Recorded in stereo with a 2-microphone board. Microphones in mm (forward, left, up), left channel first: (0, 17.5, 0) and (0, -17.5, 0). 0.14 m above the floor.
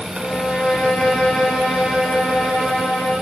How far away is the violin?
About 7 m.